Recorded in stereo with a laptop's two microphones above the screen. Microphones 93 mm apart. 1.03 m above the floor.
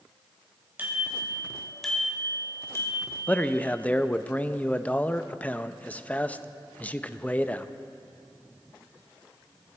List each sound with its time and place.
0.8 s a bicycle bell: 20° right (ahead or behind), 4 m; by 3.1 s 40° left (ahead or behind), 3 m
3.3 s a man speaking: 15° left (ahead or behind), 0.6 m